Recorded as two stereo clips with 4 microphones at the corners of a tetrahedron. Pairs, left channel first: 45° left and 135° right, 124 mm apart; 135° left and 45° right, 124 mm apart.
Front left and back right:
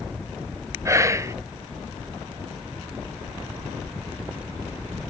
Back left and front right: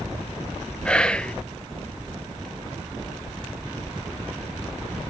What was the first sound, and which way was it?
Whispering, 155° right.